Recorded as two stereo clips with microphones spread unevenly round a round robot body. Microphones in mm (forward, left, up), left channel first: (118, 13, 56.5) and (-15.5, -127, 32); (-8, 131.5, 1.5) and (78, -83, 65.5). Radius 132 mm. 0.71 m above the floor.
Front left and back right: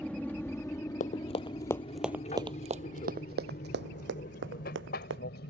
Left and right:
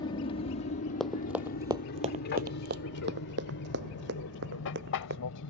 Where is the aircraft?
140° left; by 5.5 s 95° left.